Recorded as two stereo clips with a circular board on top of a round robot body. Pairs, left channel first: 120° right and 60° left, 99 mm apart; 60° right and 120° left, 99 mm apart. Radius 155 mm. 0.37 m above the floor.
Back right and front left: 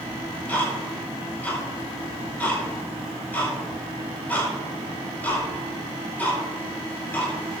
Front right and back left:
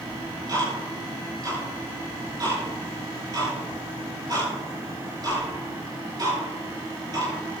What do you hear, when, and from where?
0.1 s ticking: 165° left, 5.5 m